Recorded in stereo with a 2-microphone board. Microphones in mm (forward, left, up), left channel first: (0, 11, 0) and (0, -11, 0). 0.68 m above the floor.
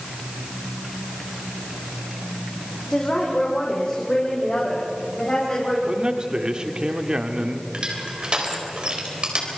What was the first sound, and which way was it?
A woman speaking, 40° left (ahead or behind).